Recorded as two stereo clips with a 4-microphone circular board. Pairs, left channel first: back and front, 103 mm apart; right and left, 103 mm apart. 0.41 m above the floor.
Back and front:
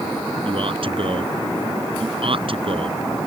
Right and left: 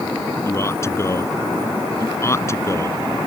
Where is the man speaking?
30° right.